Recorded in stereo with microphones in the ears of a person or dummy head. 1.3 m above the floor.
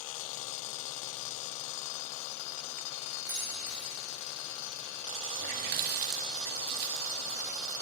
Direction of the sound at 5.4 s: 50° right (ahead or behind).